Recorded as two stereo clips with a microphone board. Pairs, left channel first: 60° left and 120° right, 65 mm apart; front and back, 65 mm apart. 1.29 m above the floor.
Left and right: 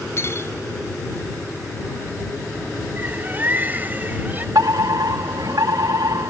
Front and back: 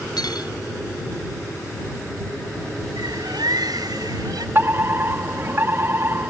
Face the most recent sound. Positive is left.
turn(degrees=-125)